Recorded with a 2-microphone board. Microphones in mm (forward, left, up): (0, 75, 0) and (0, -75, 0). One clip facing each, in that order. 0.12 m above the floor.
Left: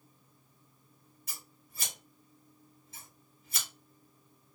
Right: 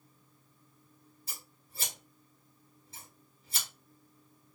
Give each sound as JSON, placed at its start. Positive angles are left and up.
{"t": 1.3, "sound": "scissors", "side_deg": -30, "distance_m": 1.4}